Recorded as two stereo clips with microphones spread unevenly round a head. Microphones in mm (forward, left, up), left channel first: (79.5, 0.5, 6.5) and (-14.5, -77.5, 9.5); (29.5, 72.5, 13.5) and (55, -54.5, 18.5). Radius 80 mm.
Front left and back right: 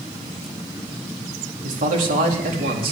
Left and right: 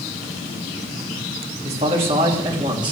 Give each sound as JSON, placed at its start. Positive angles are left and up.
{"t": 1.6, "sound": "a man speaking", "azimuth_deg": -130, "distance_m": 3.5}